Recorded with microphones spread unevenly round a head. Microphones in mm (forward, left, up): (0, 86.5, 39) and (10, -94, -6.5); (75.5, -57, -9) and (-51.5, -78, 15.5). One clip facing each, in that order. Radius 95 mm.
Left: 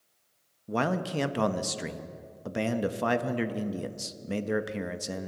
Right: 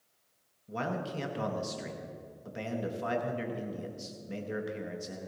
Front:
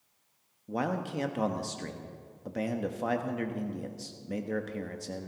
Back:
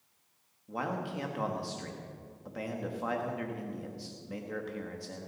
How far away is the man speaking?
About 1.0 m.